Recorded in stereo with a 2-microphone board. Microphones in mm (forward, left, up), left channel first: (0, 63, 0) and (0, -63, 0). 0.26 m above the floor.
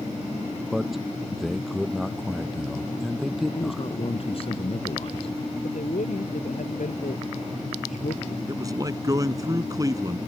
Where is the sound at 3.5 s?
50° left (ahead or behind).